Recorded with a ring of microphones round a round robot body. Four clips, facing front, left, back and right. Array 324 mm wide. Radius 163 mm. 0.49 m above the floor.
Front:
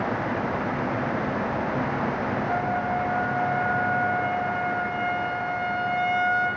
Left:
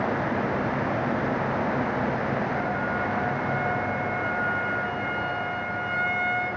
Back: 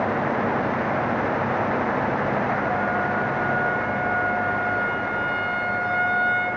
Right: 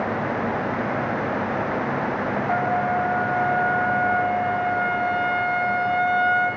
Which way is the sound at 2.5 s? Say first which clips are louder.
Right 6 dB, back 2 dB; 85° right.